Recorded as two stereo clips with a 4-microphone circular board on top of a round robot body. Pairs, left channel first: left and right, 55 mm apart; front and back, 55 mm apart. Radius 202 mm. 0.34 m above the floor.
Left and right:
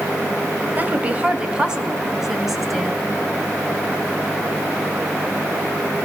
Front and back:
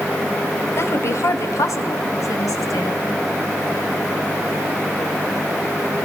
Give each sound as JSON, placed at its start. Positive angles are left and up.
{"t": 0.8, "sound": "a woman speaking", "azimuth_deg": -35, "distance_m": 2.5}